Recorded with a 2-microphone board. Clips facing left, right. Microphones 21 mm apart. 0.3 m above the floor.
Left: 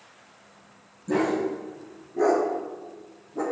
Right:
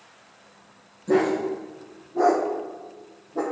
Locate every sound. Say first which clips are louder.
1.1 s a dog barking: right 3 dB; 70° right (ahead or behind), 5 m; by 3.4 s 75° right (ahead or behind), 4 m